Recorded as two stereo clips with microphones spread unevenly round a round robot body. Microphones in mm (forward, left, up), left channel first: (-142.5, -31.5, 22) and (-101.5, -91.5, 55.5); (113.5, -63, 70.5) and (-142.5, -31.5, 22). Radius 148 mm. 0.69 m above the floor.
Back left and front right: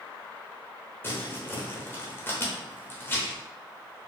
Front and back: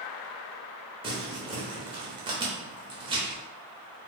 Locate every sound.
1.0 s crumpling: 115° left, 1.1 m